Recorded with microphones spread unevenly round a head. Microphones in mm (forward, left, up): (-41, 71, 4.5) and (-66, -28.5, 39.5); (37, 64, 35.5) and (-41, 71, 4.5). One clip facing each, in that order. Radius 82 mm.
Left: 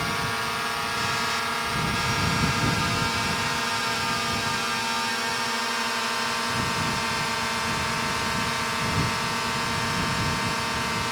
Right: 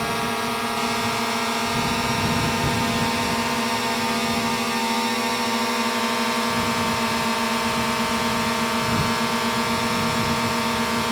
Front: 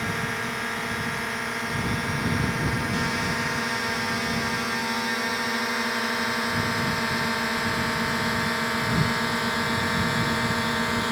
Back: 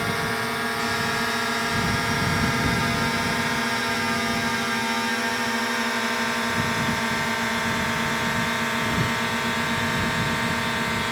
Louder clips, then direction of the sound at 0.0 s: Right 4 dB, back 3 dB; 130° right.